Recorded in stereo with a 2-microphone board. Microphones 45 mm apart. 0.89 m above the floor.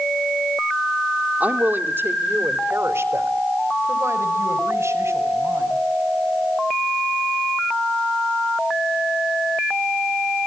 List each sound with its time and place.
1.4 s a woman speaking: 35° right (ahead or behind), 2 m; by 5.8 s 85° right, 5 m